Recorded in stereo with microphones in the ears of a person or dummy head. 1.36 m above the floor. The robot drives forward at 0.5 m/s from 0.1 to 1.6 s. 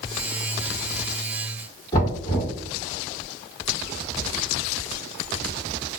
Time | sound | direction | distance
1.9 | knocking | 30° left (ahead or behind) | 1.8 m